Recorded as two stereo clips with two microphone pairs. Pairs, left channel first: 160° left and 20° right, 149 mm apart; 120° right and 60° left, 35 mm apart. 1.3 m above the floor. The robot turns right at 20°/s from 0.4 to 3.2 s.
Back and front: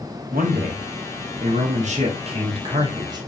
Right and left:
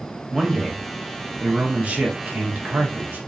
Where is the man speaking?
15° right, 1.2 m; by 3.2 s 40° left, 1.2 m.